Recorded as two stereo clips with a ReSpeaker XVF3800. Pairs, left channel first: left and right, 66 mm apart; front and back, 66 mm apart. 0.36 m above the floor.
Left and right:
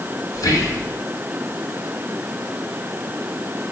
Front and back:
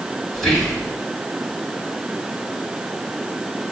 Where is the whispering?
85° left, 2.0 m.